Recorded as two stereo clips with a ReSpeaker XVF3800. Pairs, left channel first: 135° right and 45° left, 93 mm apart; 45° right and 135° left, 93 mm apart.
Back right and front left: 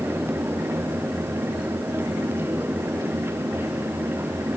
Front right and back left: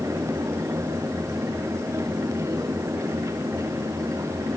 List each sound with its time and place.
Only background noise.